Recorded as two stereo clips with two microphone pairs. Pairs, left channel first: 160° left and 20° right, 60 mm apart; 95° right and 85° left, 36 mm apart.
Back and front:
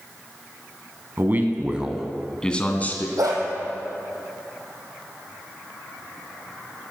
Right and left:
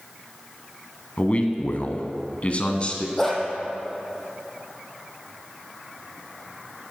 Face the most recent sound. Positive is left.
turn(degrees=-15)